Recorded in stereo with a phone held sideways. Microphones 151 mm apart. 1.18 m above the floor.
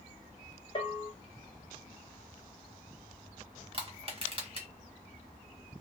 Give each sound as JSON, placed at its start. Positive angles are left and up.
{"t": 0.8, "sound": "a bell", "side_deg": 35, "distance_m": 0.9}
{"t": 3.7, "sound": "crushing", "side_deg": -40, "distance_m": 1.1}